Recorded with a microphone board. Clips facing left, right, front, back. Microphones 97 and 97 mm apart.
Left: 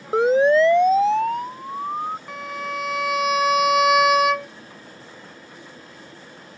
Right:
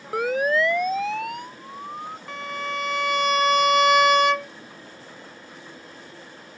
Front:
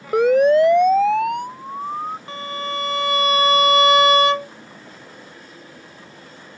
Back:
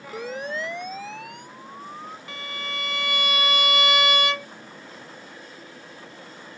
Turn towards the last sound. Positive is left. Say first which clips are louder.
# left 1 dB, front 8 dB
turn(degrees=5)